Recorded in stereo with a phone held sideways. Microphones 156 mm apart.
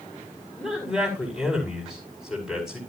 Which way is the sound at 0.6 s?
5° right (ahead or behind).